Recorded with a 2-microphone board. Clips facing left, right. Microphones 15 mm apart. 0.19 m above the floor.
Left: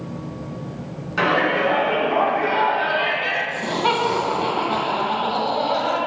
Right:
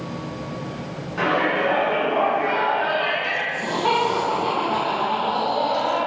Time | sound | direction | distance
1.2 | a shout | 45° left (ahead or behind) | 1.9 m
3.5 | laughter | 40° left (ahead or behind) | 1.7 m